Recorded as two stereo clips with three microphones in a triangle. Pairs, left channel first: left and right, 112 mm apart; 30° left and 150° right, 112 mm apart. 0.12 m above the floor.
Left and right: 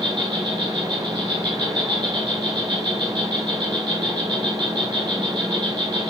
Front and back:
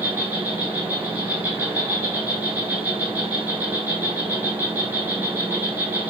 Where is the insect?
80° right, 0.7 m.